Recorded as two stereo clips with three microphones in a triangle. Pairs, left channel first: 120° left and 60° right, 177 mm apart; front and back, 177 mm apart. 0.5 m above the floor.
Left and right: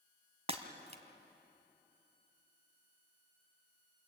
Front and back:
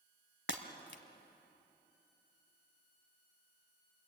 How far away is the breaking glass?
About 1.8 m.